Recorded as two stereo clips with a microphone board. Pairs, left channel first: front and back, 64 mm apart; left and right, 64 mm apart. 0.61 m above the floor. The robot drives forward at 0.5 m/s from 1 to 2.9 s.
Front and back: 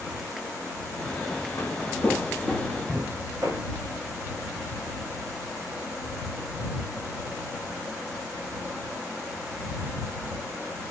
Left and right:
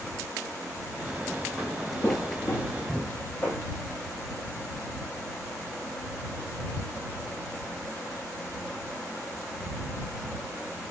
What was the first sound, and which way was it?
Footsteps, 10° left.